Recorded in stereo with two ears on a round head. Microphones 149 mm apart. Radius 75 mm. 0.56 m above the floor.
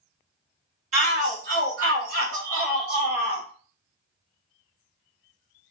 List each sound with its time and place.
0.9 s a shout: 45° right (ahead or behind), 1.5 m; by 3.5 s 65° right (ahead or behind), 2.5 m